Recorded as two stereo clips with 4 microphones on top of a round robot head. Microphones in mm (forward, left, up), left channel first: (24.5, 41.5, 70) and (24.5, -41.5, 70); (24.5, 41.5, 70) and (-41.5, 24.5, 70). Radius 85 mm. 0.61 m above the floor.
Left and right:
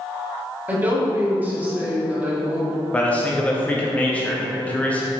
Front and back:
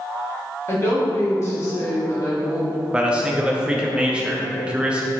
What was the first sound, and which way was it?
A woman speaking, 20° right.